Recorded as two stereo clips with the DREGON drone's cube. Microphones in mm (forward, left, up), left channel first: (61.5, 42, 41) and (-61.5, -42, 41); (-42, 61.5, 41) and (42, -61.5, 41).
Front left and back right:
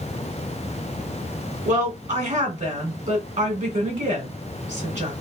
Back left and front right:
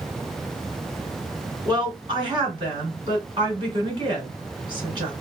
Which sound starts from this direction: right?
A woman speaking, at 1.6 s.